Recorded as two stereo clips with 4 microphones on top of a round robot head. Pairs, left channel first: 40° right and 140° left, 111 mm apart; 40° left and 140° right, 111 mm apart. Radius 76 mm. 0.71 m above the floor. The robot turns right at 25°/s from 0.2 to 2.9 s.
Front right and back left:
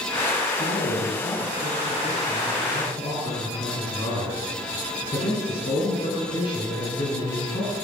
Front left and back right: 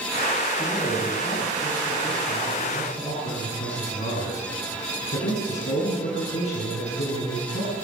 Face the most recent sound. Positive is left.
turn(degrees=10)